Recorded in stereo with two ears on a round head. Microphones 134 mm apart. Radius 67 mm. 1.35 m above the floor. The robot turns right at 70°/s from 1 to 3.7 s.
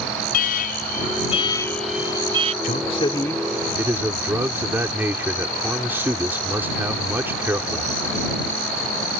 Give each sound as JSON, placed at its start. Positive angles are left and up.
{"t": 0.3, "sound": "an alarm", "azimuth_deg": 120}
{"t": 2.6, "sound": "a man speaking", "azimuth_deg": 120}